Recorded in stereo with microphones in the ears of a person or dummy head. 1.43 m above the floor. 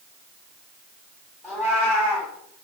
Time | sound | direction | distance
1.4 | a cat meowing | 15° left (ahead or behind) | 1.1 m